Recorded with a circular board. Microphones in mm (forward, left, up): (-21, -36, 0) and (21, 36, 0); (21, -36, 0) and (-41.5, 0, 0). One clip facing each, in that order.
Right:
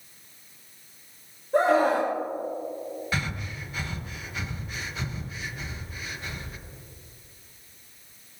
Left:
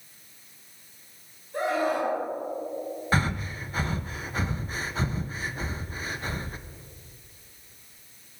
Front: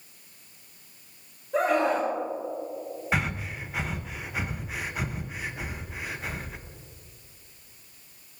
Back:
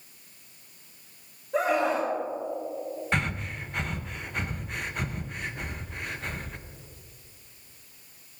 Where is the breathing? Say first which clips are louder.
Left 9 dB, front 2 dB; 55° left, 0.5 m.